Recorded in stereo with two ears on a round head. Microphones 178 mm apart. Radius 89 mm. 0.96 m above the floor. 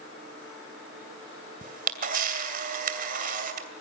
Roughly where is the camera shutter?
Right.